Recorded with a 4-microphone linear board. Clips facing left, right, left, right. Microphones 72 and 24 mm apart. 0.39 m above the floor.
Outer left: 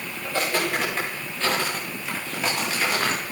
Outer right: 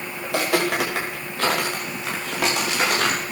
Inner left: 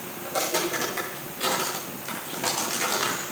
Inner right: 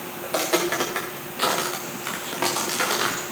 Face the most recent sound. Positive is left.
turn(degrees=-65)  # may be behind; listen again after turning